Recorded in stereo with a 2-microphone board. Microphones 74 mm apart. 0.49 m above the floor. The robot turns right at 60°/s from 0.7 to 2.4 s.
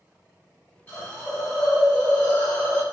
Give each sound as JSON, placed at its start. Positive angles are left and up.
{"t": 0.9, "sound": "a hiss", "azimuth_deg": 40, "distance_m": 1.3}